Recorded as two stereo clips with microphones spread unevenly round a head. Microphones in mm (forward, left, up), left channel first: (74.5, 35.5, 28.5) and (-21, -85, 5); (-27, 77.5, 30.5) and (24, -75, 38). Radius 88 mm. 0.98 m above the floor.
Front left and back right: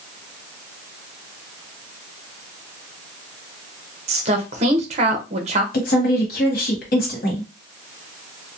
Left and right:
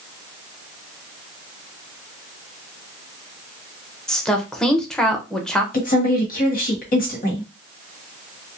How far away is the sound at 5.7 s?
About 1.2 m.